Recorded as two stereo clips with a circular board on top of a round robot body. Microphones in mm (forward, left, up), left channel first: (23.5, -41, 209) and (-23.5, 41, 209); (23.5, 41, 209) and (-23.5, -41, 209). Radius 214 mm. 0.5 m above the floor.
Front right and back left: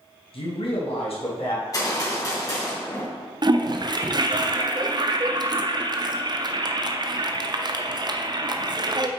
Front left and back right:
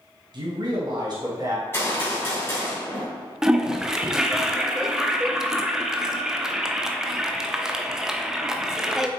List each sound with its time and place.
0.3 s a man speaking: 80° right, 3 m; by 1.6 s 70° right, 4 m
1.7 s a gunshot: 5° right, 3.5 m
3.4 s a toilet flushing: 155° left, 0.9 m